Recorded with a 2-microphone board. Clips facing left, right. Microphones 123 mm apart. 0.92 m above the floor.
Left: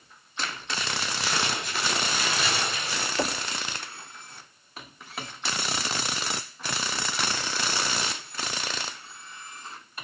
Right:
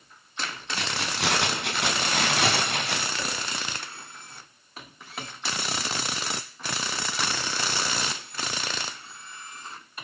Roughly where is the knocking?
Left.